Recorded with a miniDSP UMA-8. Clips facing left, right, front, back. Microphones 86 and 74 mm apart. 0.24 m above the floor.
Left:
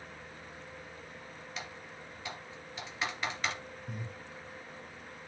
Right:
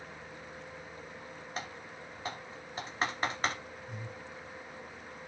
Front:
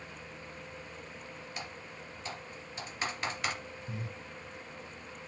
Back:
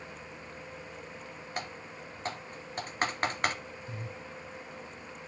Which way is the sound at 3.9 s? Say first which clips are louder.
Left 2 dB, front 1 dB; 65° left.